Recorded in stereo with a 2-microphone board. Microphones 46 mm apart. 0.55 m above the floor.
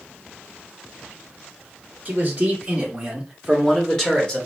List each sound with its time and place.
2.0 s a man speaking: 30° right (ahead or behind), 1.3 m; by 4.5 s 20° left (ahead or behind), 1.5 m